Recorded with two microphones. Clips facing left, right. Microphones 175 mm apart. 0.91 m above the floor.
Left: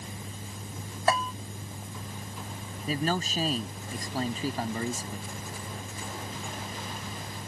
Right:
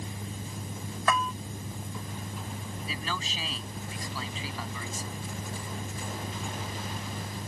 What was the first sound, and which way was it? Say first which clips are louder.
A bell: left 2 dB; 35° left (ahead or behind).